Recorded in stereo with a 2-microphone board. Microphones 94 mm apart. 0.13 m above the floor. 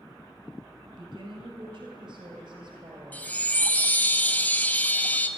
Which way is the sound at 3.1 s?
20° left (ahead or behind).